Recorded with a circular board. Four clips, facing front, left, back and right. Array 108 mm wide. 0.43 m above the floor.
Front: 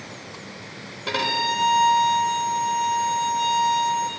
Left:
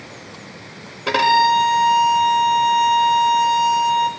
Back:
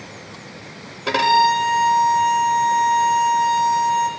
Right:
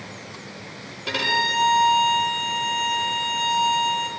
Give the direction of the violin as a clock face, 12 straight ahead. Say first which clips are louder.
Left 11 dB, back 10 dB; 8 o'clock.